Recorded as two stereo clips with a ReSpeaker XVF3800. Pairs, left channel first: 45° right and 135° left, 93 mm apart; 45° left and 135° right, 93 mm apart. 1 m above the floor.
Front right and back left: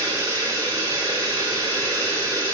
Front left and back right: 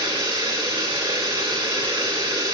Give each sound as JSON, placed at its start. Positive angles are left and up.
{"t": 0.0, "sound": "running water", "azimuth_deg": -175, "distance_m": 2.5}